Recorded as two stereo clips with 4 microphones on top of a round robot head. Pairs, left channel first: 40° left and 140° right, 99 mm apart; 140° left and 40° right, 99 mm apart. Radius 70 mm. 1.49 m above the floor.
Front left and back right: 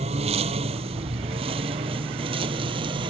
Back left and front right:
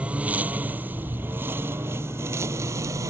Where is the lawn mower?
115° right; by 3.1 s 100° right.